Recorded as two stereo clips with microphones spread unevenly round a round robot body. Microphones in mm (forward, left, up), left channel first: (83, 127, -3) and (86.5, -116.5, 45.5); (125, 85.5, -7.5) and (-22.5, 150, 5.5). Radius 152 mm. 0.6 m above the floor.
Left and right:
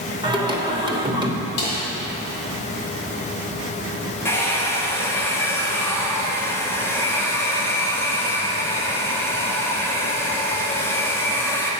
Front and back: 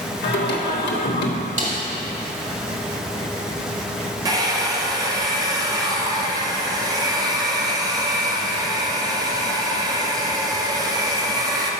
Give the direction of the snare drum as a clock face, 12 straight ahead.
8 o'clock.